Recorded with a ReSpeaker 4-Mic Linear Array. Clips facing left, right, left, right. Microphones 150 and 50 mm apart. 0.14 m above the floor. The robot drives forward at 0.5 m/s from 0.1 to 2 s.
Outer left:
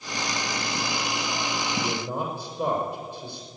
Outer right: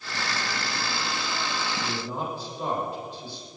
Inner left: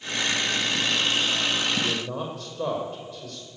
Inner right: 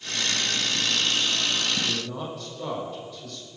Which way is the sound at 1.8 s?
55° left (ahead or behind).